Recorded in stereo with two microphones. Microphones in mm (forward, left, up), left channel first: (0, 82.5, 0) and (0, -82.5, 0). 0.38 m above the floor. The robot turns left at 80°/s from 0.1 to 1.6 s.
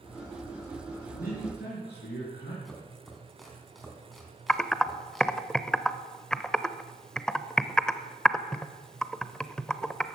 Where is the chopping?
Centre (ahead or behind), 3 m.